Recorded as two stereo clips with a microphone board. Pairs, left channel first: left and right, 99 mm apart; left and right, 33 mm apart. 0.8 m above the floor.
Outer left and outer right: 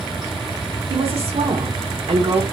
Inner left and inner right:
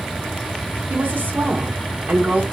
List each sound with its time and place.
0.9 s a woman speaking: 80° right, 1.6 m